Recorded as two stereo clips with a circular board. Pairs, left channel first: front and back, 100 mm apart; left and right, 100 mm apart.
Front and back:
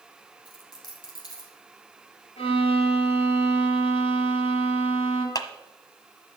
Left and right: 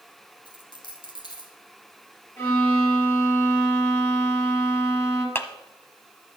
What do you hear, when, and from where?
0.5 s a dropped coin: 50° left, 3 m
2.4 s a violin: 25° left, 5 m
5.3 s a clap: 30° left, 1.2 m